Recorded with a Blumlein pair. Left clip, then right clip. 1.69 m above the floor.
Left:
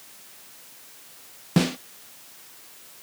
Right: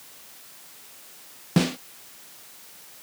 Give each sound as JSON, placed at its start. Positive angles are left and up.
{"t": 1.6, "sound": "a snare drum", "azimuth_deg": 5}